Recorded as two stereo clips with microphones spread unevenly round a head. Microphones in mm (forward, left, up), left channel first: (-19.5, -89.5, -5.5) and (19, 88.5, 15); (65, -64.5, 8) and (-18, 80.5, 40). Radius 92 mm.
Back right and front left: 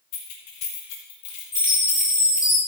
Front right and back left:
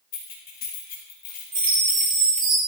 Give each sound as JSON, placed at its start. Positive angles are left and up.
{"t": 0.1, "sound": "keys jangling", "azimuth_deg": -110, "distance_m": 4.5}
{"t": 1.5, "sound": "a chime", "azimuth_deg": 165, "distance_m": 6.5}